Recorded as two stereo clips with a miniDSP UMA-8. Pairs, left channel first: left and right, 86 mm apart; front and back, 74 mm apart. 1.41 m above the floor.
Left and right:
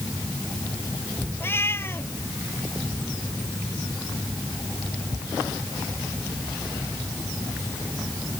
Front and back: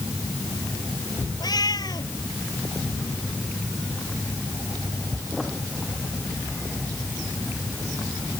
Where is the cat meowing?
30° left.